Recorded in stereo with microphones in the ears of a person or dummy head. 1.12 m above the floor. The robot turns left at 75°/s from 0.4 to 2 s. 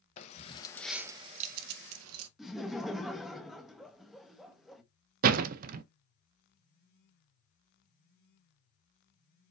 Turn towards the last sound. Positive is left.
turn(degrees=-50)  # may be behind; listen again after turning